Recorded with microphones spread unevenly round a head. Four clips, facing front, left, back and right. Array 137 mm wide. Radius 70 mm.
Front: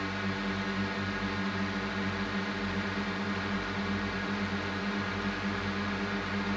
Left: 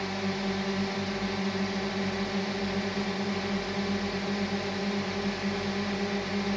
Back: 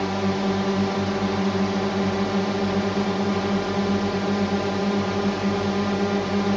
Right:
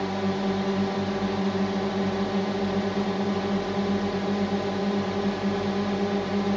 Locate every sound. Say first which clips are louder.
0.0 s a drone: right 5 dB, back 11 dB; 160° right